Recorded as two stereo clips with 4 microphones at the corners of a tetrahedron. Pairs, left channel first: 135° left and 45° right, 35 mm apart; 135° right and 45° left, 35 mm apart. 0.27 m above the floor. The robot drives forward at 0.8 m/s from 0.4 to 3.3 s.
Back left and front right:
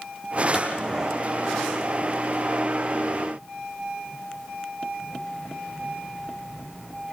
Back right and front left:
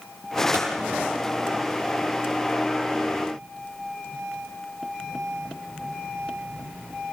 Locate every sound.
0.5 s a clap: 30° left, 7 m